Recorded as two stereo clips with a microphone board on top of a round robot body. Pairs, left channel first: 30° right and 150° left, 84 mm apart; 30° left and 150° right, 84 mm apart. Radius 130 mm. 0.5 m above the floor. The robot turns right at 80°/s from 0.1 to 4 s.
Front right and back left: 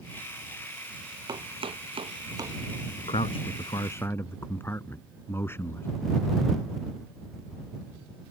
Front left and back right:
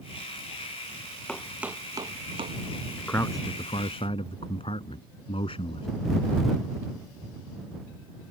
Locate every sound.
1.3 s chopping: 110° left; by 2.6 s 150° right
3.0 s a man speaking: 50° right; by 5.9 s 35° left